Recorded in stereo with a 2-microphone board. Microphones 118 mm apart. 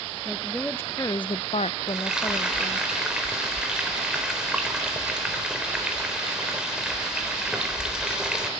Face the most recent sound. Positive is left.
turn(degrees=-5)  # may be behind; listen again after turning